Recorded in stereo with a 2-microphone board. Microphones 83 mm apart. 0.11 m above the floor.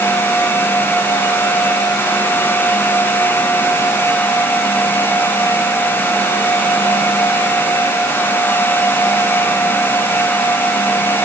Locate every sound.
Only background noise.